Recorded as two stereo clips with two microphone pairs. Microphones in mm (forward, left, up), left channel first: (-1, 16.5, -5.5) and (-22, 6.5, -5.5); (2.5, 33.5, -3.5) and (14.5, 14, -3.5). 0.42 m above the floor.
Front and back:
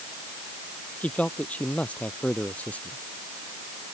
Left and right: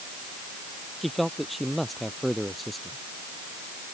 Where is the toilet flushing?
I don't hear a toilet flushing.